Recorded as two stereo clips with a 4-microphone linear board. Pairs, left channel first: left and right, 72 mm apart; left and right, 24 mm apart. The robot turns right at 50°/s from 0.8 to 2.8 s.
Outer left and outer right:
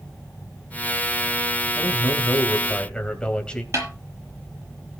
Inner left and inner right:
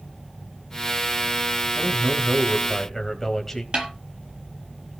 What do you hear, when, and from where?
1.8 s a man speaking: 115° left, 2.5 m; by 3.6 s 165° left, 2.5 m
3.7 s a snare drum: 45° right (ahead or behind), 7.5 m